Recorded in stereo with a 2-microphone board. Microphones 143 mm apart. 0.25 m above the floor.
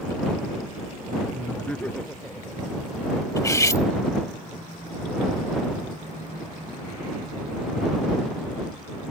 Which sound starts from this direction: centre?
Laughter, at 1.3 s.